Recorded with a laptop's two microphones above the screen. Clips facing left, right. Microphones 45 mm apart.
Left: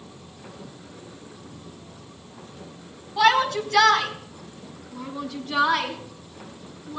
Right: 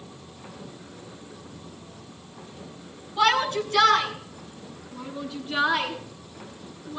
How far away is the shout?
About 6.5 m.